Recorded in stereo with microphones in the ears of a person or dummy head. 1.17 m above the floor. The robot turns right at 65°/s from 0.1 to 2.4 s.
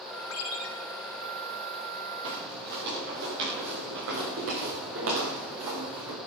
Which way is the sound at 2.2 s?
75° right (ahead or behind).